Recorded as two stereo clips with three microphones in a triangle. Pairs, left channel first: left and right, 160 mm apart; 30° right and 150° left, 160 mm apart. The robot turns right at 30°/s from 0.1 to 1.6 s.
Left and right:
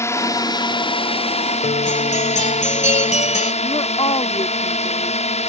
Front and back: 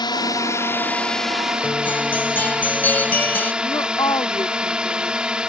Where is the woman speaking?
35° left.